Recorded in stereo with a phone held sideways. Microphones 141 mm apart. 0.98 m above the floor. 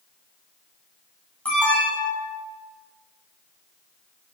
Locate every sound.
1.4 s an alarm: 10° left (ahead or behind), 6.5 m